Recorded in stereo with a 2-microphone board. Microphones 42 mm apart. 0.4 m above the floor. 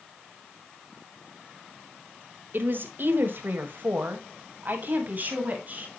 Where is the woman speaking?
50° right (ahead or behind), 1.7 m; by 5.9 s 40° right (ahead or behind), 3 m.